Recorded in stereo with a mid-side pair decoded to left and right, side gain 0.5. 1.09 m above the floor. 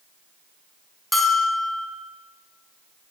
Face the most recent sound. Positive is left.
turn(degrees=0)